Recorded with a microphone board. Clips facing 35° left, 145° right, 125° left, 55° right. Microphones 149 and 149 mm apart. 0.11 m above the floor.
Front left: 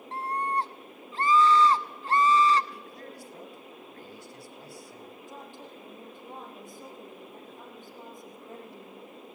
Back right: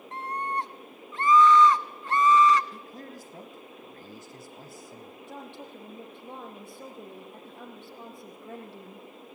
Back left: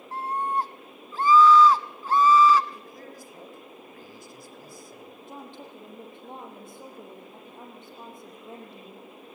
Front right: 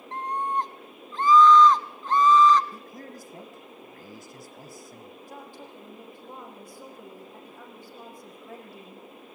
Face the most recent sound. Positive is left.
turn(degrees=-170)